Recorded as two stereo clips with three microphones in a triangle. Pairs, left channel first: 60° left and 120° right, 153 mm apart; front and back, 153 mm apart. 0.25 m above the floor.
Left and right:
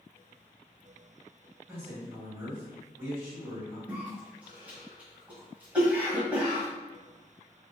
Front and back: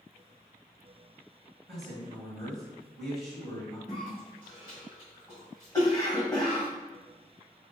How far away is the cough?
About 1.6 m.